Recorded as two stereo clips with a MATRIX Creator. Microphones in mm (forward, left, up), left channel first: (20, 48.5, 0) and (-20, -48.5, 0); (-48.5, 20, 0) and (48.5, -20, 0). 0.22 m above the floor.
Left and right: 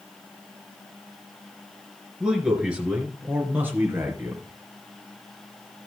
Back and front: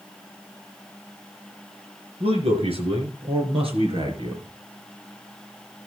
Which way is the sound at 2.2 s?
30° right.